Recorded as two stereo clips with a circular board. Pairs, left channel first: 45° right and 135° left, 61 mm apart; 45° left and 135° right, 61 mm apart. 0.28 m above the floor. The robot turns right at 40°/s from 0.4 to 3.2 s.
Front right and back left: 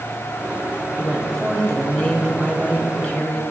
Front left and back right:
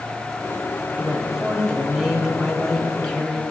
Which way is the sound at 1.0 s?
115° right.